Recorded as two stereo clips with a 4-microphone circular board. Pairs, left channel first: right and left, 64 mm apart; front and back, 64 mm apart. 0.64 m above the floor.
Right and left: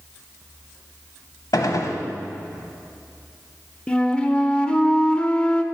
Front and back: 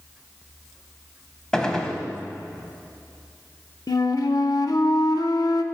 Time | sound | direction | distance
1.5 | a gunshot | 80° right | 0.9 m
3.9 | a flute | 15° right | 0.5 m